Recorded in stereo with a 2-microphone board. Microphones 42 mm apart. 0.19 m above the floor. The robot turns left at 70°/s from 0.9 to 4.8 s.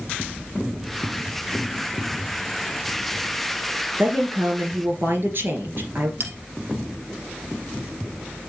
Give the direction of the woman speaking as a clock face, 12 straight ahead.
2 o'clock.